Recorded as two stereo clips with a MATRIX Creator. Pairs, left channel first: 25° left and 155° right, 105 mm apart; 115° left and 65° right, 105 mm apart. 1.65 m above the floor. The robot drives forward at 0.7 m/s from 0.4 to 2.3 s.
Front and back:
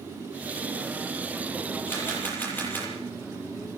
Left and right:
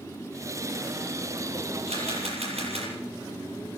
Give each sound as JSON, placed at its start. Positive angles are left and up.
{"t": 1.9, "sound": "a camera shutter", "azimuth_deg": -50, "distance_m": 8.0}